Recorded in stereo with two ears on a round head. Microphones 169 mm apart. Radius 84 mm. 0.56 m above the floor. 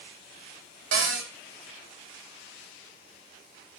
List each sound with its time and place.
0.9 s a cupboard door: 80° right, 1.2 m